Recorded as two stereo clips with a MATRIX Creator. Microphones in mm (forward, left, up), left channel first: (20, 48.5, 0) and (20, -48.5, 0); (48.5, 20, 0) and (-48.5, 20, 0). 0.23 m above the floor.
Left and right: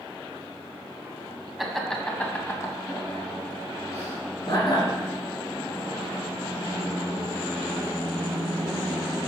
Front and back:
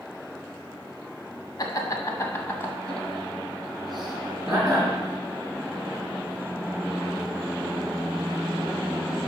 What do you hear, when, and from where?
1.6 s laughter: straight ahead, 1.5 m; by 4.9 s 105° left, 2.5 m